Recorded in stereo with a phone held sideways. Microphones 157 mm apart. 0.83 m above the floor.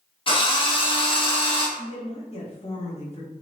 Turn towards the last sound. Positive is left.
turn(degrees=45)  # may be behind; listen again after turning